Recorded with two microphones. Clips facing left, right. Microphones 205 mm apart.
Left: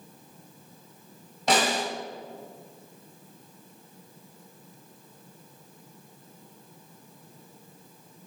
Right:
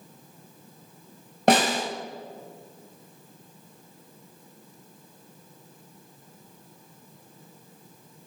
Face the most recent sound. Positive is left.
turn(degrees=-60)  # may be behind; listen again after turning